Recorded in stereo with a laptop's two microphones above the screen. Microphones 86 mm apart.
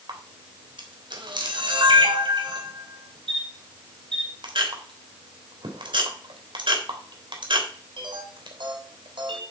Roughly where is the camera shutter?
Right.